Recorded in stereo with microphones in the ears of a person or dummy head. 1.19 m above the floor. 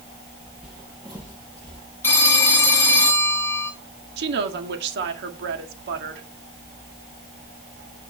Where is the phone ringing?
10° left (ahead or behind), 1.4 m.